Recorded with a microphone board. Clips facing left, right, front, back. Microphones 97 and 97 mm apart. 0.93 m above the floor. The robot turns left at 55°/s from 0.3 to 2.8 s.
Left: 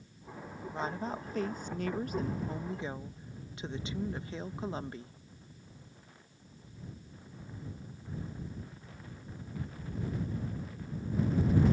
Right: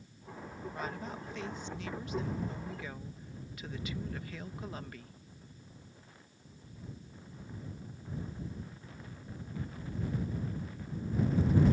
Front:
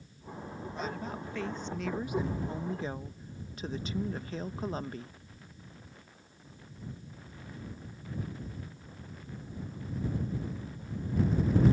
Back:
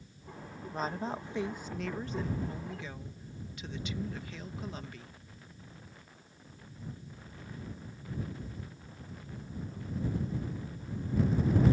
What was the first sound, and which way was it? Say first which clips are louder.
A woman speaking: left 5 dB, back 4 dB; 150° left.